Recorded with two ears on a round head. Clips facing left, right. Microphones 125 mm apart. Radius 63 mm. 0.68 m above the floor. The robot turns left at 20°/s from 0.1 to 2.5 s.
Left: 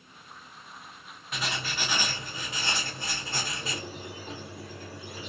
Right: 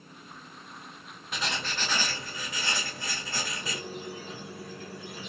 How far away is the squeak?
About 1.2 m.